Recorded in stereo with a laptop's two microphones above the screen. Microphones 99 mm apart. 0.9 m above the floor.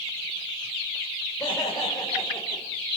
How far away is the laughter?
About 3.5 m.